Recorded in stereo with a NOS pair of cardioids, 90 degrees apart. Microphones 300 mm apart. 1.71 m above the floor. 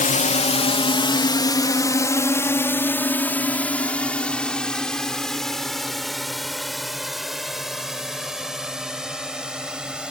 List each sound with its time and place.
0.0 s a drone: 25° left; by 10.1 s 5° right